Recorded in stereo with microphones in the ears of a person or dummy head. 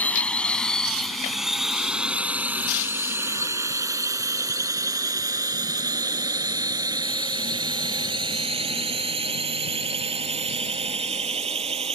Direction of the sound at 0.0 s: 10° left (ahead or behind).